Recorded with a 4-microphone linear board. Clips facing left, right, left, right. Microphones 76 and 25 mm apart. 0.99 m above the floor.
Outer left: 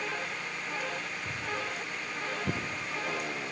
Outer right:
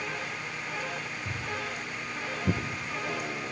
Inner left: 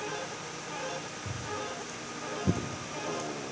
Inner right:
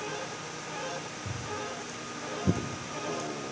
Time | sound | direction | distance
1.2 | footsteps | centre (ahead or behind) | 3.5 m